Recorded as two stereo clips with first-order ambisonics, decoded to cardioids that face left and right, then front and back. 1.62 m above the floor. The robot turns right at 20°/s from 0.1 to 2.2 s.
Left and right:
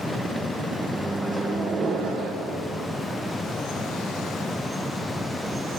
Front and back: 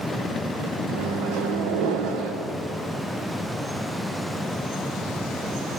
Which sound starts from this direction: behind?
A microwave, at 0.9 s.